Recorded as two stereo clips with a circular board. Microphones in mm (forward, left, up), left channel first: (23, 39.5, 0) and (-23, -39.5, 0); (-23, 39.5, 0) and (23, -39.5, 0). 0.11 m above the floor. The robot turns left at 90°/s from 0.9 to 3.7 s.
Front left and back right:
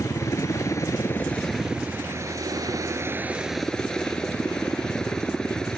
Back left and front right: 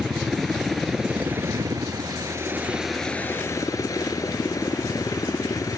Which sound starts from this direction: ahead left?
A helicopter, at 0.0 s.